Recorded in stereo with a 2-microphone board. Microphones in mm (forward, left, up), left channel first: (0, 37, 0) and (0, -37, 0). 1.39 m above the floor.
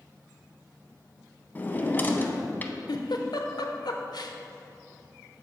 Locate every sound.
1.6 s a drawer: 25° left (ahead or behind), 0.8 m
2.9 s a giggle: 70° left (ahead or behind), 0.7 m